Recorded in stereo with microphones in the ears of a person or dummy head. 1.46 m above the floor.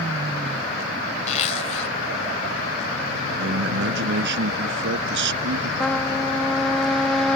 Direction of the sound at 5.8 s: 5° left (ahead or behind).